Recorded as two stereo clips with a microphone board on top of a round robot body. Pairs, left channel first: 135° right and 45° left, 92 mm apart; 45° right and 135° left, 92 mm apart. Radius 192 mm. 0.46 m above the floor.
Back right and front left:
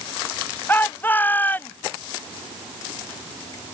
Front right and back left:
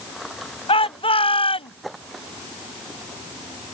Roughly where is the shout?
Ahead right.